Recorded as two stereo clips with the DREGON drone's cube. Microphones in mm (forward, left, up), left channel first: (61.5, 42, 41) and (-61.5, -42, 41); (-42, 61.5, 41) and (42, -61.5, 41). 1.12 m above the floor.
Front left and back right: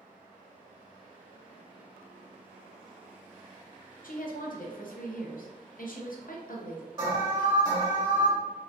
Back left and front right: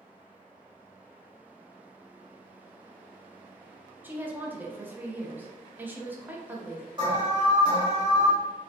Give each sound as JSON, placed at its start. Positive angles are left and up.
{"t": 4.0, "sound": "a woman speaking", "azimuth_deg": 20, "distance_m": 0.6}
{"t": 7.0, "sound": "an alarm", "azimuth_deg": -105, "distance_m": 1.7}